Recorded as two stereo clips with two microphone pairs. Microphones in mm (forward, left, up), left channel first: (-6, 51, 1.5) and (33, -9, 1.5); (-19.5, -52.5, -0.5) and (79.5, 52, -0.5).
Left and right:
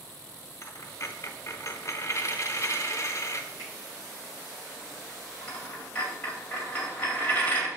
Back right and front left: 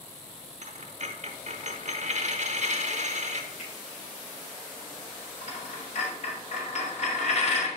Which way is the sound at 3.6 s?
95° right.